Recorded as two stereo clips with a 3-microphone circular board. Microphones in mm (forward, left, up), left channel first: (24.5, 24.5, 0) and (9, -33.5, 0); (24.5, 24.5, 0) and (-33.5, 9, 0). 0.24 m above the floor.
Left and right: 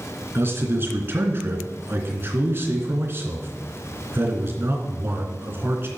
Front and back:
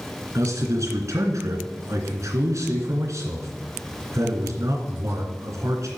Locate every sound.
0.3 s a man speaking: 145° right, 2.5 m